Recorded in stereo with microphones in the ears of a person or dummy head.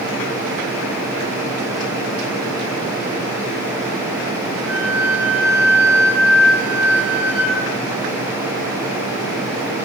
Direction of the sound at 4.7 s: Centre (ahead or behind).